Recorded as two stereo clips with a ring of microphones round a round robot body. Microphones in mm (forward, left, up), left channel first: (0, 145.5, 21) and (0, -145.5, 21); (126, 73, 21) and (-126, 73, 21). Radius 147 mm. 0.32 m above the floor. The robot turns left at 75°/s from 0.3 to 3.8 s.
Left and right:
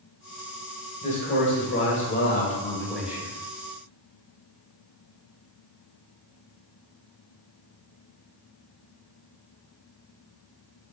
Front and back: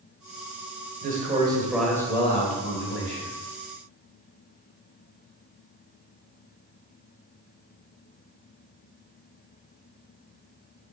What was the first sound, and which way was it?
A man speaking, 150° left.